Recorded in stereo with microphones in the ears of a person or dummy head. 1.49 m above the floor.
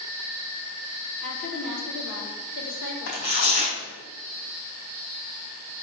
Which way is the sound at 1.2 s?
70° left (ahead or behind).